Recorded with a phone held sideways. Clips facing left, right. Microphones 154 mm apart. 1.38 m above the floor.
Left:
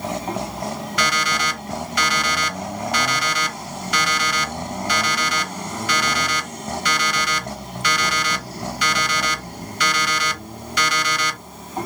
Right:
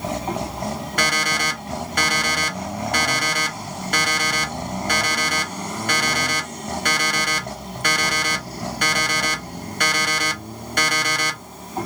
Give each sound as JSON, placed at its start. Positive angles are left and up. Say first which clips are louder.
{"t": 1.0, "sound": "an alarm clock", "louder": "left 1 dB", "side_deg": -50, "distance_m": 1.3}